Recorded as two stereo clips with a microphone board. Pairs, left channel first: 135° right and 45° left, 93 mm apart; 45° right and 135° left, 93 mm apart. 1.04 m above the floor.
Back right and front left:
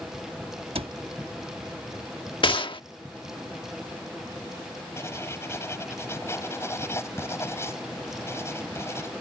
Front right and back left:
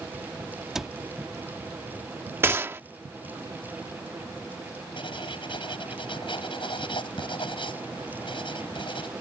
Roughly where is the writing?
Right.